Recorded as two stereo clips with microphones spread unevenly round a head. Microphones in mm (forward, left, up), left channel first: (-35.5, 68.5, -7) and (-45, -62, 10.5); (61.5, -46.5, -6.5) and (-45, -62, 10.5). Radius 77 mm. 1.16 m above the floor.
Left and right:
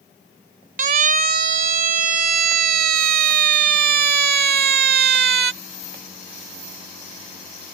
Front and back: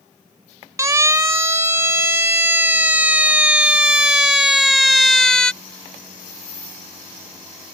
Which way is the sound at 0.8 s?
110° right.